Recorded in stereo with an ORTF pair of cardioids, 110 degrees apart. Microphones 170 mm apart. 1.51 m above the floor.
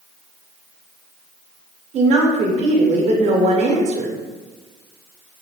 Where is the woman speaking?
40° right, 0.7 m.